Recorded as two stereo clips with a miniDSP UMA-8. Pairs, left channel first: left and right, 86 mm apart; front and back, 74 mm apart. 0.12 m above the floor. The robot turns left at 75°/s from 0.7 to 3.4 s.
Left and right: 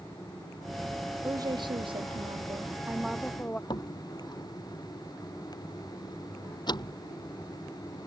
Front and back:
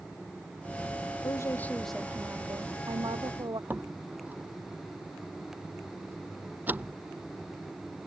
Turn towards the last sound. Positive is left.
turn(degrees=115)